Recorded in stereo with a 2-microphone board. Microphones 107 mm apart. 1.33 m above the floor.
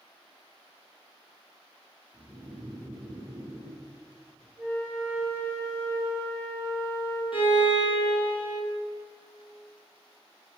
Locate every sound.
2.1 s snoring: centre (ahead or behind), 1.9 m
4.6 s a flute: 25° left (ahead or behind), 1.8 m
7.3 s a violin: 55° left (ahead or behind), 1.0 m